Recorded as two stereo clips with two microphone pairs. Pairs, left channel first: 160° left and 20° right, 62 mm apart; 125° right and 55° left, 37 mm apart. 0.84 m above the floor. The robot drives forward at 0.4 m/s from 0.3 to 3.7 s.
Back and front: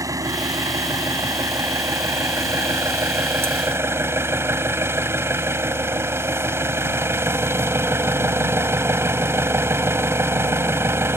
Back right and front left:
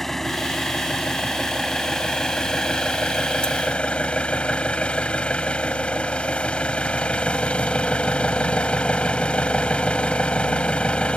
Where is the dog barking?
I don't hear a dog barking.